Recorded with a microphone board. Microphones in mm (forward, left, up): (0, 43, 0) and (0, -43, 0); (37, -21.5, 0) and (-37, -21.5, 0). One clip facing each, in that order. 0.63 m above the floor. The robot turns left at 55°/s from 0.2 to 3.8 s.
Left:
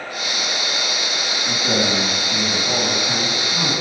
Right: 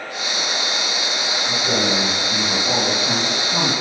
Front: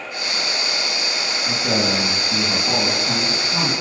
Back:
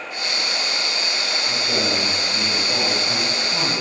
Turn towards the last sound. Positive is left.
turn(degrees=-115)